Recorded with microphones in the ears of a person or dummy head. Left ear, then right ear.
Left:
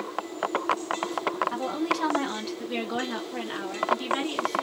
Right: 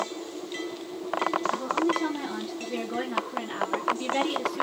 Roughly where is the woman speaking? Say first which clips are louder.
Right 2 dB; left.